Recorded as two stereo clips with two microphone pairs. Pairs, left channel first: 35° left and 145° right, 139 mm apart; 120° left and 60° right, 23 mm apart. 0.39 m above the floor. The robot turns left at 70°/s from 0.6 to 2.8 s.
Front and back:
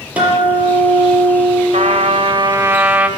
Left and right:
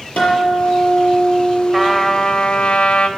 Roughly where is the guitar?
Behind left.